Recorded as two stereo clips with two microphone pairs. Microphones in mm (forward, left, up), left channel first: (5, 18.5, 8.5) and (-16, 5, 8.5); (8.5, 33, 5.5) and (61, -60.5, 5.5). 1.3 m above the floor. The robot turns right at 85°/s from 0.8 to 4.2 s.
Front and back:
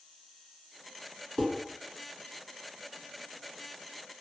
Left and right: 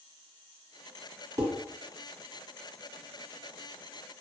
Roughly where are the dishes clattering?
Ahead.